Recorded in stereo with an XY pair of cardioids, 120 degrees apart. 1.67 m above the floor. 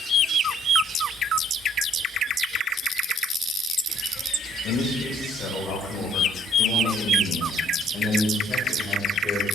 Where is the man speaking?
55° left, 5 m; by 9.4 s 15° left, 6.5 m.